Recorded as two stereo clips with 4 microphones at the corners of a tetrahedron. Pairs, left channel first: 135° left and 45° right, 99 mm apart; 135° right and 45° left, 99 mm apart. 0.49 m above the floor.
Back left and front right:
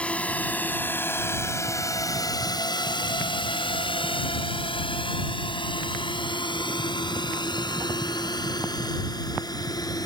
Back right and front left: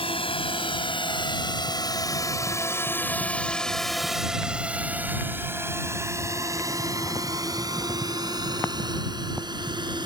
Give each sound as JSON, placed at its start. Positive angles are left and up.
{"t": 0.0, "sound": "a drone", "azimuth_deg": -150}